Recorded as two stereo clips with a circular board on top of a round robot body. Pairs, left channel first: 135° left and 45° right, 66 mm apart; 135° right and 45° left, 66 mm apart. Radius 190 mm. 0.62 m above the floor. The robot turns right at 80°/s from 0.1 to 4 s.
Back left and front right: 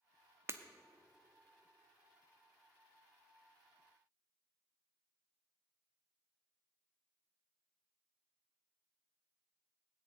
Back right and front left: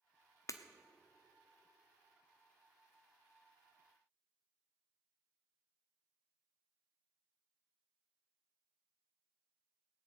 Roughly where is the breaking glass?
Right.